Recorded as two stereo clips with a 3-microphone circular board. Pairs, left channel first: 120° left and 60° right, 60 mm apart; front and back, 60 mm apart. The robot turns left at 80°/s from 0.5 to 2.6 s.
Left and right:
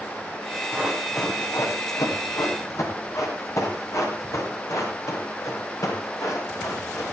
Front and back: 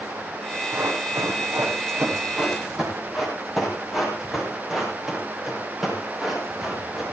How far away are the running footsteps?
About 7.5 m.